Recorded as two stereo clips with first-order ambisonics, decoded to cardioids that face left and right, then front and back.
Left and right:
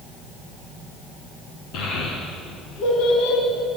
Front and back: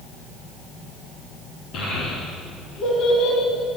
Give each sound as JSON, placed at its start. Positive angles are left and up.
{"t": 1.7, "sound": "a child speaking", "azimuth_deg": 50, "distance_m": 4.5}